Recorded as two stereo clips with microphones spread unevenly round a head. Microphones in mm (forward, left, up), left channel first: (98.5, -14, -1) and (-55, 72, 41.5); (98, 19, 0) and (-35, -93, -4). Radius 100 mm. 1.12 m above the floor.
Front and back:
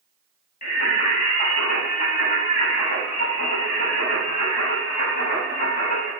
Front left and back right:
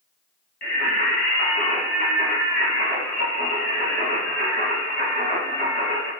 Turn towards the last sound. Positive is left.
turn(degrees=10)